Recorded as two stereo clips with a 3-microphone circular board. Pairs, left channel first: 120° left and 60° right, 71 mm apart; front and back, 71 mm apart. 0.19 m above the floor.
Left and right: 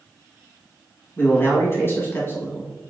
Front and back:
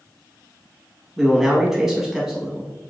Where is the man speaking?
100° left, 1.7 m.